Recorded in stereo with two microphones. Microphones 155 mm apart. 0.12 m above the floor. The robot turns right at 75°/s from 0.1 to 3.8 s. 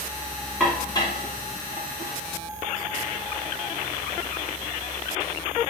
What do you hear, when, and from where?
0.6 s dishes clattering: centre (ahead or behind), 6 m; by 2.2 s 65° left (ahead or behind), 6 m